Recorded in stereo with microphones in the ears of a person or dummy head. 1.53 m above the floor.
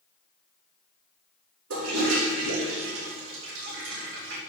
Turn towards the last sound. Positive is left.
turn(degrees=-85)